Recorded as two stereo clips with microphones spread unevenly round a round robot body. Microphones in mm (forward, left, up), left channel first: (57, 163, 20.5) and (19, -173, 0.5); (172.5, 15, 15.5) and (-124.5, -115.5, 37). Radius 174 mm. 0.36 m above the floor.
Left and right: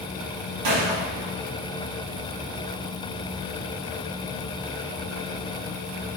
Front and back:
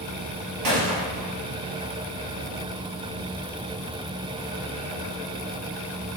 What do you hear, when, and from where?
0.6 s a gunshot: 130° right, 2.5 m